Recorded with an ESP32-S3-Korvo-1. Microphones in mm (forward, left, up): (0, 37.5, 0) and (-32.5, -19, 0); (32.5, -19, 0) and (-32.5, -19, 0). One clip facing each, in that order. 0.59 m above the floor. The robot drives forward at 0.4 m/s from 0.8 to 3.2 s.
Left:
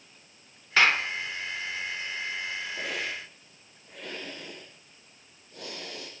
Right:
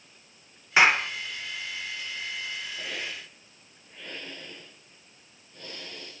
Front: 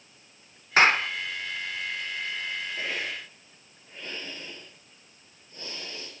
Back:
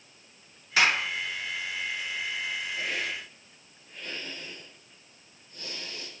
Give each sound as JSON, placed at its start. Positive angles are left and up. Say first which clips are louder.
{"t": 0.8, "sound": "a clap", "louder": "right 2 dB, front 4 dB", "azimuth_deg": -50, "distance_m": 1.2}
{"t": 2.8, "sound": "a hiss", "louder": "left 3 dB, even", "azimuth_deg": 60, "distance_m": 5.0}